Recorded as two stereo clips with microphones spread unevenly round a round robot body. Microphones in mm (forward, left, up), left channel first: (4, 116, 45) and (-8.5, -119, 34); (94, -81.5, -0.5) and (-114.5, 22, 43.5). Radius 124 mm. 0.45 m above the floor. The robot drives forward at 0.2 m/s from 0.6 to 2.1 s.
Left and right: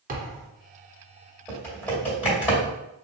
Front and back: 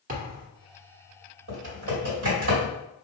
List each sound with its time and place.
0.1 s a thud: 150° right, 1.1 m
1.5 s typing on a keyboard: 170° left, 1.9 m